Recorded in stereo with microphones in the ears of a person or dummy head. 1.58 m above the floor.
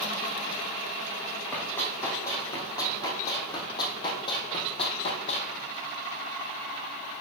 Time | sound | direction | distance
1.5 | running footsteps | 15° left (ahead or behind) | 4.5 m